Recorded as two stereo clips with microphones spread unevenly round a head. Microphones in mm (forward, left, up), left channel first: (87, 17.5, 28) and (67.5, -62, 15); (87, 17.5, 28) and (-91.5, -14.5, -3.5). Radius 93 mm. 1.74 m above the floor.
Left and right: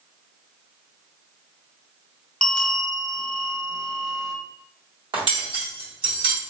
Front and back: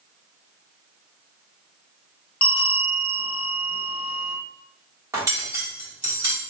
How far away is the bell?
About 1.0 m.